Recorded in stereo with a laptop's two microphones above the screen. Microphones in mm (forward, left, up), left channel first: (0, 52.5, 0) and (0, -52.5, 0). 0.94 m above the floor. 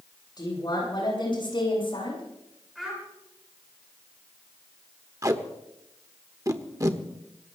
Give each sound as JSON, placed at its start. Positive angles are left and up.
{"t": 0.4, "sound": "a woman speaking", "side_deg": 40, "distance_m": 9.0}
{"t": 2.8, "sound": "a child speaking", "side_deg": 0, "distance_m": 6.0}
{"t": 5.2, "sound": "tape being pulled", "side_deg": -30, "distance_m": 1.2}